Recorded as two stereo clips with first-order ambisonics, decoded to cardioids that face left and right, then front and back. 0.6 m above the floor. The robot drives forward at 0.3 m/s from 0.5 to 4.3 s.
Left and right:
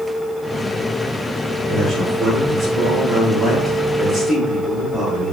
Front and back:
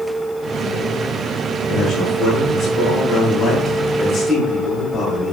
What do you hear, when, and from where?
1.7 s a man speaking: 20° right, 1.4 m; by 5.3 s 60° right, 1.0 m